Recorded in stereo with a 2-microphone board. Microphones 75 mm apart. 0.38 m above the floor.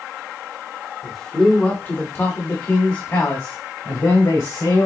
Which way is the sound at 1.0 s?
Centre (ahead or behind).